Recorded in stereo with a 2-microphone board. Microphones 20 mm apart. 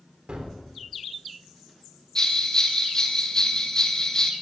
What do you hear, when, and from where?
0.3 s a gunshot: 55° right (ahead or behind), 3 m
2.1 s a bell: 35° left (ahead or behind), 2.5 m